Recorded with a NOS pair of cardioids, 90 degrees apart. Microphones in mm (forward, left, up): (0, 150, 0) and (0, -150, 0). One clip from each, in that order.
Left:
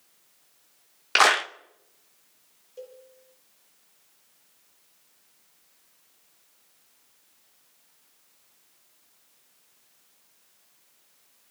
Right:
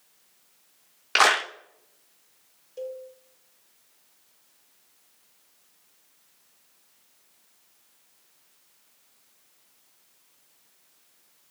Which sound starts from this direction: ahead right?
A cowbell, at 2.8 s.